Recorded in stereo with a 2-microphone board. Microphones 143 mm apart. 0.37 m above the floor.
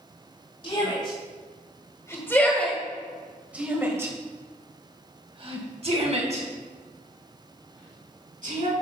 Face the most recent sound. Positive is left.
turn(degrees=-65)  # may be behind; listen again after turning